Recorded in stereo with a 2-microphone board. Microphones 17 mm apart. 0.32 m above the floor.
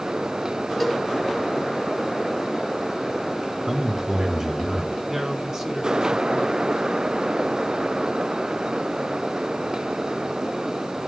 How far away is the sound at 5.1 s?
About 3 m.